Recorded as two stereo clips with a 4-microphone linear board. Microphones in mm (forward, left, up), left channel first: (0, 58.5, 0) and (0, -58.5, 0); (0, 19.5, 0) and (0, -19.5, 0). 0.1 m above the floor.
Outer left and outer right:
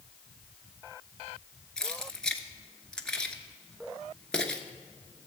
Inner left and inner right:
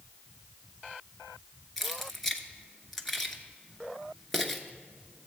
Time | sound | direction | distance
1.8 | keys jangling | 5° left (ahead or behind) | 0.9 m